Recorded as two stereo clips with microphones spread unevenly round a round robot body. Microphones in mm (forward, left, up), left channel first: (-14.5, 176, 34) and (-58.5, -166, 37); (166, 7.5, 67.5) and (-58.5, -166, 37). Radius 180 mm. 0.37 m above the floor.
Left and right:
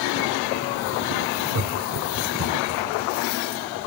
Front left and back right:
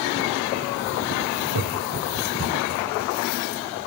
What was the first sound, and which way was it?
Laughter, 125° right.